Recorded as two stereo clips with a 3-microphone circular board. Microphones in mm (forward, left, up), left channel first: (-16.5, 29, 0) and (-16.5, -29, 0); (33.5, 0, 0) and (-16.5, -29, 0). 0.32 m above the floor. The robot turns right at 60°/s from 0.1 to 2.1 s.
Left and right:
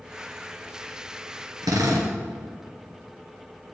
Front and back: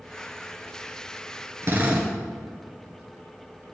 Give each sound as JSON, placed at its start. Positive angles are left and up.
{"t": 1.6, "sound": "a drill", "azimuth_deg": -100, "distance_m": 1.8}